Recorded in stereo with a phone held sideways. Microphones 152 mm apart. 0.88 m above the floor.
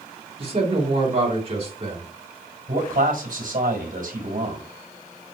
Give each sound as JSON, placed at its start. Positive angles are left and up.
{"t": 0.4, "sound": "a man speaking", "side_deg": -40, "distance_m": 3.5}
{"t": 2.7, "sound": "a man speaking", "side_deg": -60, "distance_m": 4.5}